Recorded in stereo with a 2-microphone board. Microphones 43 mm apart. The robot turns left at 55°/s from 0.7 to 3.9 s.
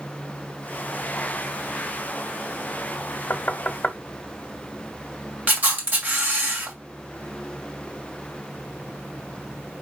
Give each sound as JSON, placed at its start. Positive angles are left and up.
{"t": 3.3, "sound": "knocking", "side_deg": 45, "distance_m": 1.5}
{"t": 5.5, "sound": "a camera shutter", "side_deg": -40, "distance_m": 2.5}